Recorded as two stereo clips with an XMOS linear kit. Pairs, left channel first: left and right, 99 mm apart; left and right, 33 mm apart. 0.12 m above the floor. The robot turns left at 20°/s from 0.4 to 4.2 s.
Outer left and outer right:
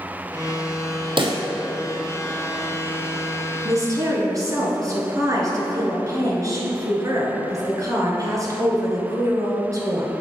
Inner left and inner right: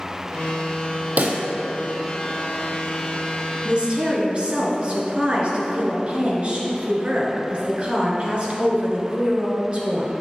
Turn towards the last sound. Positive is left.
turn(degrees=-35)  # may be behind; listen again after turning